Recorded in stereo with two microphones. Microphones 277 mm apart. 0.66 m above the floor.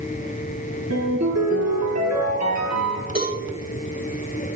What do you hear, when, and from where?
0.9 s a ringtone: 80° right, 9 m
3.1 s a cowbell: 65° right (ahead or behind), 4 m